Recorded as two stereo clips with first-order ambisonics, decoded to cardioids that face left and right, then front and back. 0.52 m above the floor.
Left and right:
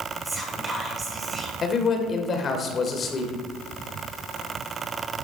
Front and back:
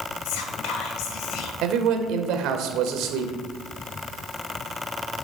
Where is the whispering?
15° right, 2 m.